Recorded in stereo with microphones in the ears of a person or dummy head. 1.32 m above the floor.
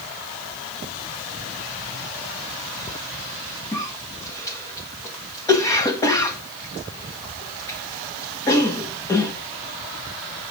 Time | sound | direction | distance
3.7 | a cough | 15° left (ahead or behind) | 1.4 m